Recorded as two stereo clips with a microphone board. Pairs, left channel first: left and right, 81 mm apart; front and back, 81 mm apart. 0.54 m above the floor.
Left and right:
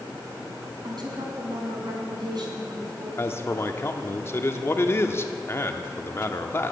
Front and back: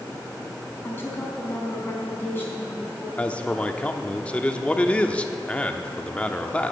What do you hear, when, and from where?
0.8 s a woman speaking: 65° right, 4 m
3.2 s a man speaking: 60° left, 0.9 m